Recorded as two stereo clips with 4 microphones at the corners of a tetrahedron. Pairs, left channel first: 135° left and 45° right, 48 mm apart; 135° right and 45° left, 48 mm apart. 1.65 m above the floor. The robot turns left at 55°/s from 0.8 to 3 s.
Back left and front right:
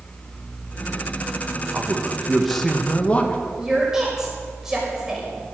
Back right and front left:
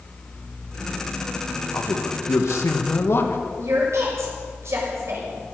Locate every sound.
1.7 s a man speaking: 95° right, 1.9 m; by 3.4 s 165° right, 1.9 m
3.6 s a woman speaking: 35° left, 6.5 m